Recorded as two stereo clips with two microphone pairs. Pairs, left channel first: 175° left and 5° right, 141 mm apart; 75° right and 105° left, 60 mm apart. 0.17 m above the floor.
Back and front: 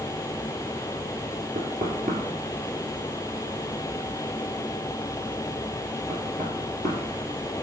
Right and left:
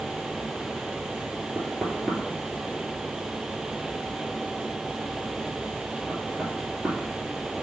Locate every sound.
1.6 s knocking: 5° left, 2 m